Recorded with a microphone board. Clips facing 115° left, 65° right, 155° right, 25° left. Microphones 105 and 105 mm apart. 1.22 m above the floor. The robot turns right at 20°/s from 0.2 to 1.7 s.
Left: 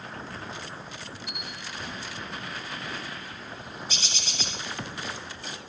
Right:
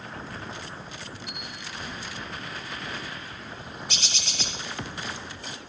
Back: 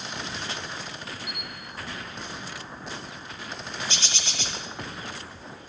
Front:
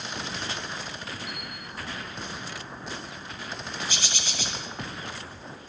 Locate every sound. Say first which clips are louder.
1.3 s a camera shutter: even, front 1 dB; 35° right, 3 m; by 1.5 s 30° right, 3 m
3.9 s a bird: right 1 dB, even; 55° right, 1.8 m